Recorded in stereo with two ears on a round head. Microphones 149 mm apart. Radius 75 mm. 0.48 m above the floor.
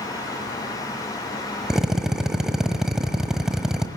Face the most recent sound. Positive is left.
turn(degrees=-5)  # may be behind; listen again after turning